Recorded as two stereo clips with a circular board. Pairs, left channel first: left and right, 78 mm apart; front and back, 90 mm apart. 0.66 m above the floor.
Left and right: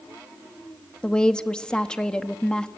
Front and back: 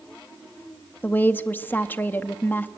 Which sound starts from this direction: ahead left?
A woman speaking, at 1.0 s.